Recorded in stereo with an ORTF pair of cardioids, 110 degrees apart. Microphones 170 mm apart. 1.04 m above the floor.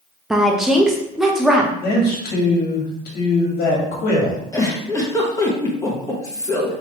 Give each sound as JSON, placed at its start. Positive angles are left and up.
{"t": 0.3, "sound": "a woman speaking", "azimuth_deg": -5, "distance_m": 0.7}
{"t": 1.8, "sound": "a man speaking", "azimuth_deg": 65, "distance_m": 1.7}
{"t": 4.5, "sound": "a giggle", "azimuth_deg": 20, "distance_m": 1.2}